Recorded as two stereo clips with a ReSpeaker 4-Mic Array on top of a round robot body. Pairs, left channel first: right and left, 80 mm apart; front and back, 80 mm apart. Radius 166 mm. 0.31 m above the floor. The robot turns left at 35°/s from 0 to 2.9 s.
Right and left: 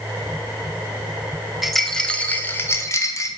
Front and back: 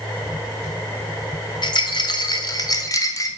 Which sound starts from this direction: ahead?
A rattle, at 1.6 s.